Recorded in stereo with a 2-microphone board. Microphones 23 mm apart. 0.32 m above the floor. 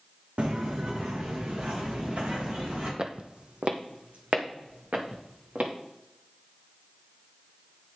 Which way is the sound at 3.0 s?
35° right (ahead or behind).